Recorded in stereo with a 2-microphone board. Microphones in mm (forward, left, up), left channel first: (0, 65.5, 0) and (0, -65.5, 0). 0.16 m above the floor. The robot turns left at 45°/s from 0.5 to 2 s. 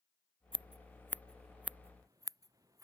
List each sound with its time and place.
0.5 s scissors: 40° left (ahead or behind); by 2.8 s 25° right (ahead or behind)